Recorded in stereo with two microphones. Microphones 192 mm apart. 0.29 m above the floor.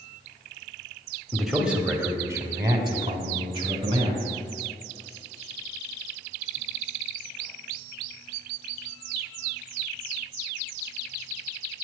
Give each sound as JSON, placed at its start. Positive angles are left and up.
{"t": 1.3, "sound": "a man speaking", "side_deg": 0, "distance_m": 1.4}